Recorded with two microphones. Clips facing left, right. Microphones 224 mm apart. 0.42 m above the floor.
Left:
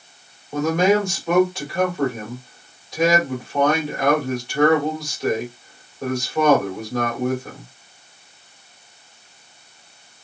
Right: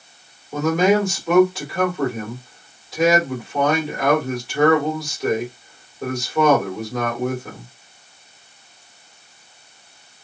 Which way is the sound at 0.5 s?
5° right (ahead or behind).